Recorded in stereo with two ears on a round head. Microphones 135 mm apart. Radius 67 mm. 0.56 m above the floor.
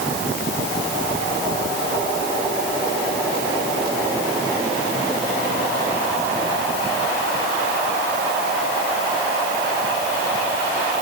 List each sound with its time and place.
Only background noise.